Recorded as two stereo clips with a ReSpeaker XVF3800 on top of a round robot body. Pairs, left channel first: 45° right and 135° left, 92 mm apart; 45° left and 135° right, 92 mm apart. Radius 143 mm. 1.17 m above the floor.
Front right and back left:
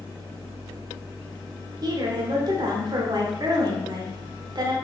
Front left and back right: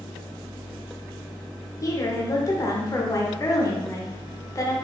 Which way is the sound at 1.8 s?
95° left.